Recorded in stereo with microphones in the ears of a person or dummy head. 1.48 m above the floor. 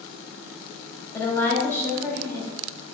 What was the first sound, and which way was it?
A woman speaking, 15° left (ahead or behind).